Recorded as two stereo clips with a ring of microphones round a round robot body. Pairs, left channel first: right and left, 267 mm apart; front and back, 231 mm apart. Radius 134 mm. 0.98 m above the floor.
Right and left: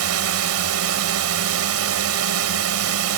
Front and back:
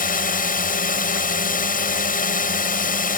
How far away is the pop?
I don't hear a pop.